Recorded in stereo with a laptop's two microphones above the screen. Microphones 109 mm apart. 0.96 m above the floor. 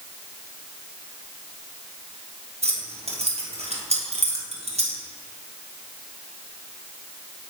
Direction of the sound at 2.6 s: 70° right (ahead or behind).